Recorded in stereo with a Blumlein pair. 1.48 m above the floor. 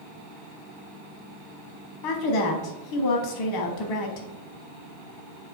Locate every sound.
2.0 s a woman speaking: 40° left, 0.7 m